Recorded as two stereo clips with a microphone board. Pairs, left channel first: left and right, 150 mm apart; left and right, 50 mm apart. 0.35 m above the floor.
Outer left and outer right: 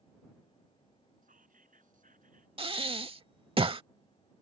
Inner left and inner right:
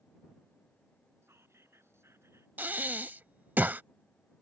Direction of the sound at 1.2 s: 75° right (ahead or behind).